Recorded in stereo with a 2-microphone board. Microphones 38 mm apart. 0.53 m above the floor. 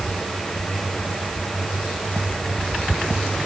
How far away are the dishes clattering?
No dishes clattering in this recording.